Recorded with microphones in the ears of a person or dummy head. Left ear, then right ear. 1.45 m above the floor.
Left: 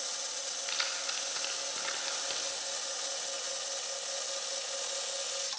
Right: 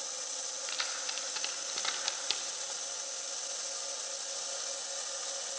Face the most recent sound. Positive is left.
turn(degrees=-45)  # may be behind; listen again after turning